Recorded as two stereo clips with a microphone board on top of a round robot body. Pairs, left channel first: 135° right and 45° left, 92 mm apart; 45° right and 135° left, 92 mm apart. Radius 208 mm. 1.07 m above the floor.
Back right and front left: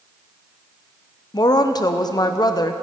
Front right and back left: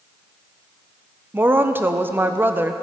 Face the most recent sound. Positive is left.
turn(degrees=-165)